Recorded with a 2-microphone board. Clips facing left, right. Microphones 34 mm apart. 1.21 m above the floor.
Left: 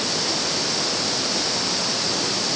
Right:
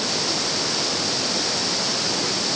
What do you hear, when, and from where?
Only background noise.